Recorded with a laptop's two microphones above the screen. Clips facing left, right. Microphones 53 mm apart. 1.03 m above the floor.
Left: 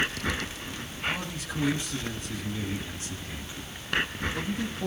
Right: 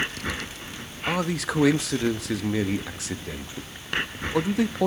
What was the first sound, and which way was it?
A man speaking, 80° right.